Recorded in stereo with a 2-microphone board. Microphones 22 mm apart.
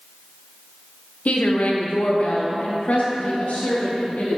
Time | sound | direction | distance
1.2 | a woman speaking | 80° left | 1.1 m